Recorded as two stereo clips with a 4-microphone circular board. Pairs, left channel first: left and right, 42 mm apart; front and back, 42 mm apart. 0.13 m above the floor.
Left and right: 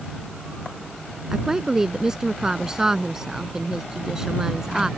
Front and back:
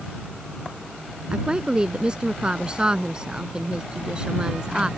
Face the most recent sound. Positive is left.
turn(degrees=-145)